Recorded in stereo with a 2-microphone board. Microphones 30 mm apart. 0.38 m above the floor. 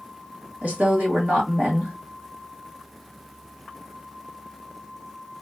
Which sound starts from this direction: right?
A woman speaking, at 0.6 s.